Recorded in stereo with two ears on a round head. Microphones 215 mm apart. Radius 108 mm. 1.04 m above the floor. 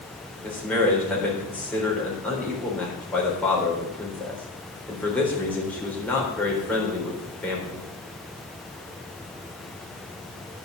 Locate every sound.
0.4 s a man speaking: 5° left (ahead or behind), 4 m